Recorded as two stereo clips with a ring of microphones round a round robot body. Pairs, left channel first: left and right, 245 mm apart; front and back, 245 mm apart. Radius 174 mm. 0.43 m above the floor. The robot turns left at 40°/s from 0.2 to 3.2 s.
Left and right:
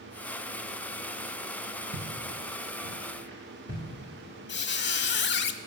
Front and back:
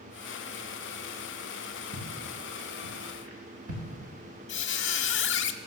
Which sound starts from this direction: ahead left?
A squeak, at 4.5 s.